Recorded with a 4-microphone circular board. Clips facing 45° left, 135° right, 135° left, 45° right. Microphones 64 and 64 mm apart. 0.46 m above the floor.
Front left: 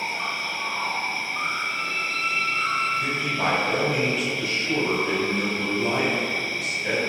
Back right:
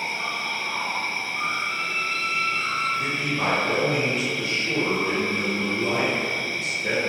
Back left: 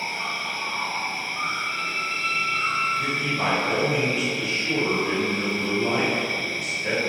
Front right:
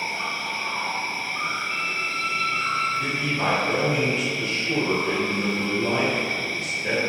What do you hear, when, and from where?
0.0 s an insect: 35° right, 1.3 m
1.7 s a violin: 175° right, 1.5 m
3.0 s a man speaking: 160° right, 1.5 m